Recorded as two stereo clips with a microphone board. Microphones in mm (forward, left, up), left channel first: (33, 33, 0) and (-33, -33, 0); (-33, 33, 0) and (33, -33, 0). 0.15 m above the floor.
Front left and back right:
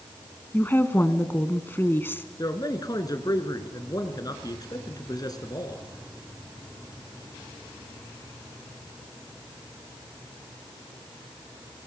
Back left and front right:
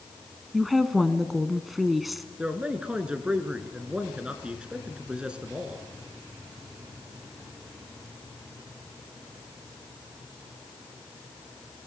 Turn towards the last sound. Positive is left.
turn(degrees=30)